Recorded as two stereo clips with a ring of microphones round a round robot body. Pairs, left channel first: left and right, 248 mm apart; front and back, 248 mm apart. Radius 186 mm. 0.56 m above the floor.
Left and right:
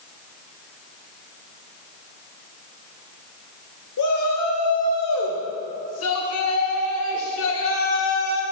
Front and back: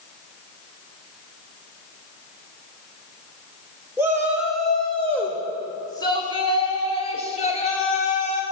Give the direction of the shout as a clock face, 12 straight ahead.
9 o'clock.